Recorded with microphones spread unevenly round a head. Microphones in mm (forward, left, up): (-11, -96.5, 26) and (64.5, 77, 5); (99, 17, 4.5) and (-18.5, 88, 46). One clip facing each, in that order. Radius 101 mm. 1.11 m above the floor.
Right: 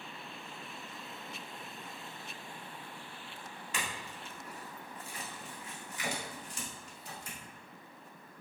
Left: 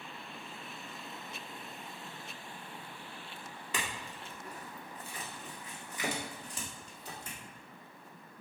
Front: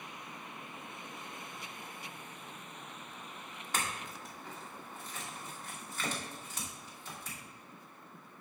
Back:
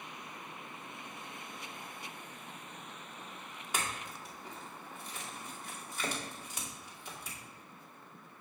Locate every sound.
3.7 s a clink: 70° left, 2 m